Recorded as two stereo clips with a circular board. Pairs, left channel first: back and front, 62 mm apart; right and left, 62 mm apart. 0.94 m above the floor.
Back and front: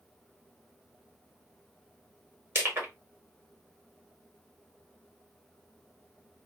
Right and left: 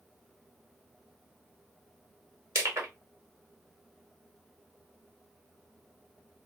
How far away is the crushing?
About 1.5 m.